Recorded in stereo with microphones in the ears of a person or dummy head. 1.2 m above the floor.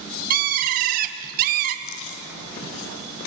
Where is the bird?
50° right (ahead or behind), 1.7 m.